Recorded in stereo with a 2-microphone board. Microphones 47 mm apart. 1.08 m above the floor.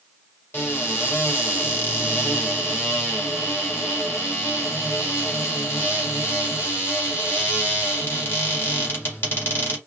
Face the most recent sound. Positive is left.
turn(degrees=55)  # may be behind; listen again after turning